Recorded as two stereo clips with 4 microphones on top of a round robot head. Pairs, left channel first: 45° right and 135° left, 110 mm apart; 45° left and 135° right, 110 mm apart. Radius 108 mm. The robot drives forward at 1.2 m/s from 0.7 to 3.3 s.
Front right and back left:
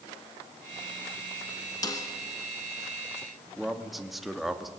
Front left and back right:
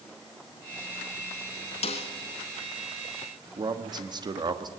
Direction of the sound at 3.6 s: 135° right.